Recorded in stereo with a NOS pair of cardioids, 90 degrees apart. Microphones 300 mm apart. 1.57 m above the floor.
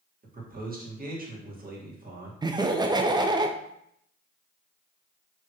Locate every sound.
0.2 s a man speaking: 30° right, 2 m
2.4 s laughter: 15° right, 0.6 m